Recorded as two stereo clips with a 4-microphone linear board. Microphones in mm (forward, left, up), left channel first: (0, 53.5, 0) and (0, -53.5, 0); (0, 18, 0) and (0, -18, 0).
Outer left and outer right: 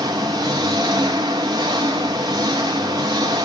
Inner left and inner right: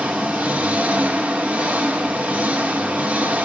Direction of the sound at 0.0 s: 35° right (ahead or behind).